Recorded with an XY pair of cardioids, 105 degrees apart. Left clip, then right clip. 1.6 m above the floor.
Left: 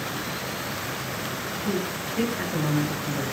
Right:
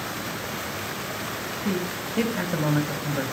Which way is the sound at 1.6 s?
45° right.